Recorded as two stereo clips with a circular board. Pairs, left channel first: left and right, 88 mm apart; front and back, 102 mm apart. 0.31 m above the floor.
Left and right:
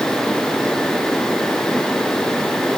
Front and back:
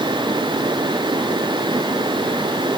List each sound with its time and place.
Only background noise.